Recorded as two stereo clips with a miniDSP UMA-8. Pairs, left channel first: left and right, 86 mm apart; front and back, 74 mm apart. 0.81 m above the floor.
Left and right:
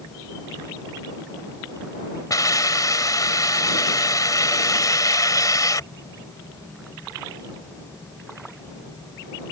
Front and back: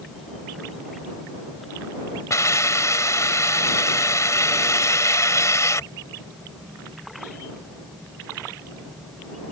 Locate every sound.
2.3 s a hiss: 45° left